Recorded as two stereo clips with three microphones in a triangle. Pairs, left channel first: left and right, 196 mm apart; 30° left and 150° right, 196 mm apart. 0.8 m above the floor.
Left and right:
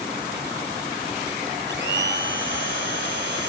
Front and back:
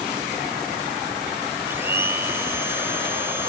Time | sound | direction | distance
1.7 | a blender | 70° right | ?